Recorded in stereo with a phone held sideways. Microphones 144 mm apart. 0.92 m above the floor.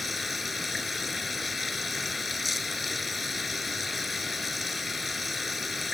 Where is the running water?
Centre (ahead or behind).